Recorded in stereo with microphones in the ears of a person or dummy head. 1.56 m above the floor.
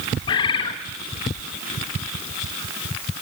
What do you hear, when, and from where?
0.3 s a bird: 20° left (ahead or behind), 1.0 m